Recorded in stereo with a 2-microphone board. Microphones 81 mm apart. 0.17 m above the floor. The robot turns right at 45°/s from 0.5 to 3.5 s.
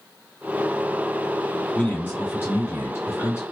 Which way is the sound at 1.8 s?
35° left.